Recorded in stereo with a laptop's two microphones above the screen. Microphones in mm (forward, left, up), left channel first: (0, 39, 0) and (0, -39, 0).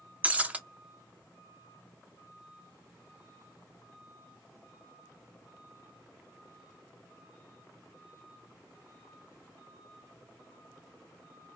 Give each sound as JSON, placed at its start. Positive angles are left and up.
{"t": 0.2, "sound": "breaking glass", "side_deg": -15, "distance_m": 0.5}